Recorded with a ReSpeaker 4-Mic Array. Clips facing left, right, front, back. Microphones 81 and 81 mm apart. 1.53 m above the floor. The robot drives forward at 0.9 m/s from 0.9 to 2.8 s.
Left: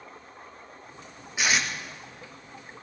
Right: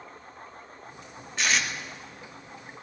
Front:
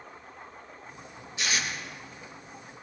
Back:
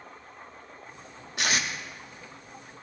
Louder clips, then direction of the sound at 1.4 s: Left 1 dB, back 2 dB; 170° left.